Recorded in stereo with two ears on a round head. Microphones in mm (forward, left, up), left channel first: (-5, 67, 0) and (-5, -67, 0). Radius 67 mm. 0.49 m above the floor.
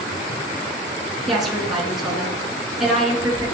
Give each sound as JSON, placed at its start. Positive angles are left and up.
{"t": 1.3, "sound": "a woman speaking", "side_deg": 0, "distance_m": 5.5}